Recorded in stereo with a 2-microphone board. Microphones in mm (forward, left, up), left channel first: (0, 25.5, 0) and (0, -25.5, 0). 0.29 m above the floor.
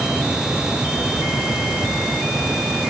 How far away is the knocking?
No knocking in this recording.